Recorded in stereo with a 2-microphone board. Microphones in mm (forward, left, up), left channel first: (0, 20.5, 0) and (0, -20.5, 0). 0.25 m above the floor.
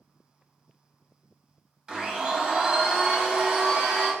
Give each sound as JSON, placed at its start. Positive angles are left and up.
{"t": 1.9, "sound": "a blender", "side_deg": -20, "distance_m": 1.1}